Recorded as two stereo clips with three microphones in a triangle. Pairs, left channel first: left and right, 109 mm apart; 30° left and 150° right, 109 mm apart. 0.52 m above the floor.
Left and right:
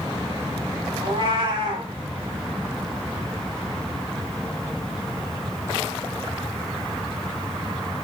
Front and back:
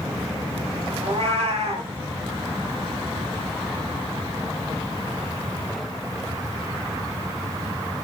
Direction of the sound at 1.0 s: 130° right.